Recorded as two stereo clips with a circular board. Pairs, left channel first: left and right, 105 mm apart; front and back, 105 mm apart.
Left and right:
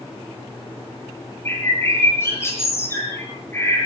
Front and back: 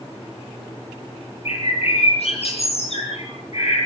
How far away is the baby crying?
No baby crying in this recording.